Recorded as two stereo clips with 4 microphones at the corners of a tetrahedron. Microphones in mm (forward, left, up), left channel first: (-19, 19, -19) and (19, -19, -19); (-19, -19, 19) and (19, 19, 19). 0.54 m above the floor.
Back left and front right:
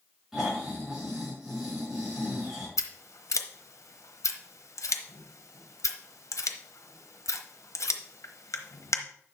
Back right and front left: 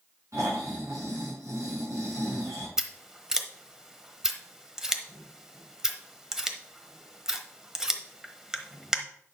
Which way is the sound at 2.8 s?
125° left.